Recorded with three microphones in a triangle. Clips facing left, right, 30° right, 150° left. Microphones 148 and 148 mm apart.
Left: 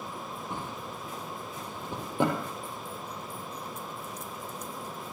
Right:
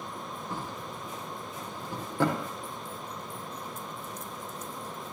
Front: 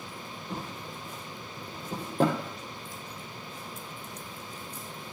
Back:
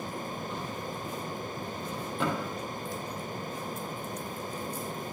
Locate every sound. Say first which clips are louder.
0.5 s a drawer: right 1 dB, back 2 dB; 20° left, 2.5 m